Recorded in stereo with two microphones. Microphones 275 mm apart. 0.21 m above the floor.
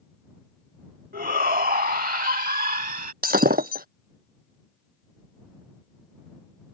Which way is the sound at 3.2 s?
35° right (ahead or behind).